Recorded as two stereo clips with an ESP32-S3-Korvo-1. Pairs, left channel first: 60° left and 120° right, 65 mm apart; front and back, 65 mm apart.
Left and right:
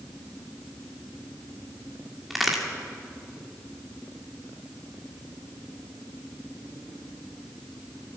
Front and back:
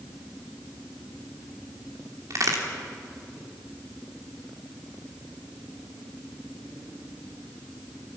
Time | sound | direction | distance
2.3 | a crack | 150° left | 2.5 m